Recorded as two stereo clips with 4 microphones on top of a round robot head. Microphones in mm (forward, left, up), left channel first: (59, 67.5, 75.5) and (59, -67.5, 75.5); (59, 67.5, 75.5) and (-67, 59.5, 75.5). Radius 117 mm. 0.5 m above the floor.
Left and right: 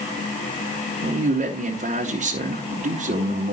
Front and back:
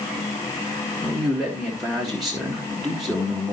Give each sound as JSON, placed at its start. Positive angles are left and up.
{"t": 1.0, "sound": "a man speaking", "azimuth_deg": -85, "distance_m": 1.8}